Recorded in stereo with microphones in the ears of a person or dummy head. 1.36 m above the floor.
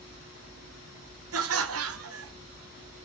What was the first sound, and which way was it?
Laughter, 75° right (ahead or behind).